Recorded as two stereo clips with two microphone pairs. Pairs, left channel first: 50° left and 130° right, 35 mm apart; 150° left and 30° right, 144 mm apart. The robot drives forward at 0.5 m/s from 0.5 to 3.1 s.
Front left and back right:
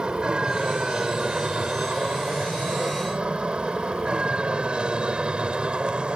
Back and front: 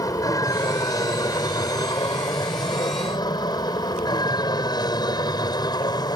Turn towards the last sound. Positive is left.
turn(degrees=-170)